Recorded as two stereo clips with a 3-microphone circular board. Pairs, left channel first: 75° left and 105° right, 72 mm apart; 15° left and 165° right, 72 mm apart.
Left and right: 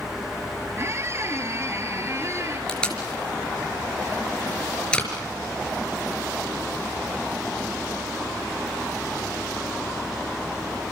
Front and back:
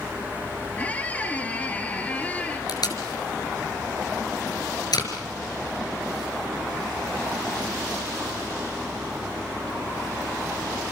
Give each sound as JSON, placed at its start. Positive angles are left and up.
{"t": 0.8, "sound": "a squeak", "azimuth_deg": -55, "distance_m": 2.5}
{"t": 2.7, "sound": "tape being pulled", "azimuth_deg": -5, "distance_m": 4.5}